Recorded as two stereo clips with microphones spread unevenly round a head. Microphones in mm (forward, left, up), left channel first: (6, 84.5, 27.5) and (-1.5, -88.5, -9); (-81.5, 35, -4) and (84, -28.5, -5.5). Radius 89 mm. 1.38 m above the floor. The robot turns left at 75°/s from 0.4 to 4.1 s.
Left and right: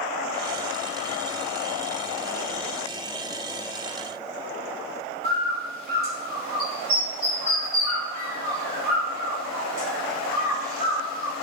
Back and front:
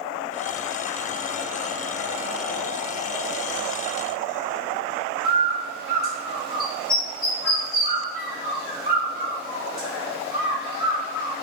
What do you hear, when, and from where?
5.2 s a bird: 130° right, 1.5 m